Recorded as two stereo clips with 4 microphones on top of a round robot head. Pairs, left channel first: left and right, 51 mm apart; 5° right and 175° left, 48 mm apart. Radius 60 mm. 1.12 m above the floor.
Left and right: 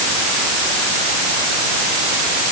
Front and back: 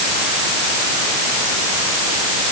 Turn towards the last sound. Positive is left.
No sound to turn to.